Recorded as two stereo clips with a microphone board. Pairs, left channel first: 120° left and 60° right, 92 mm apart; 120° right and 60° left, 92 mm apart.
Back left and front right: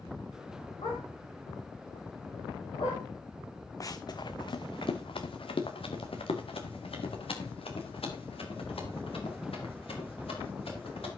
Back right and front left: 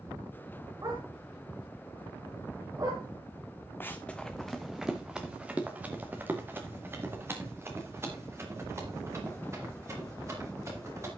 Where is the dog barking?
110° left, 6 m.